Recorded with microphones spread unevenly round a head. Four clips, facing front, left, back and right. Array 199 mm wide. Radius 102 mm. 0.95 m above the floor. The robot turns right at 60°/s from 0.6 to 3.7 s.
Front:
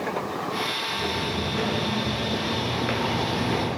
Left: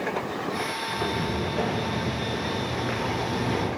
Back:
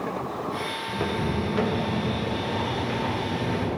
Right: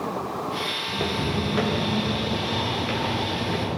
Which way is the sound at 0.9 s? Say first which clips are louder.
Right 2 dB, back 1 dB; 140° right.